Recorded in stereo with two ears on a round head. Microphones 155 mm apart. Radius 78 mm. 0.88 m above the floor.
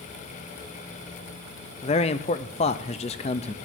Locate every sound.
1.8 s a man speaking: 35° left (ahead or behind), 0.5 m